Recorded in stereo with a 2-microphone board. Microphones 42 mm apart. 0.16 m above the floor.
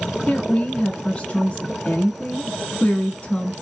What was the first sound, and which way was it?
A woman speaking, 25° left (ahead or behind).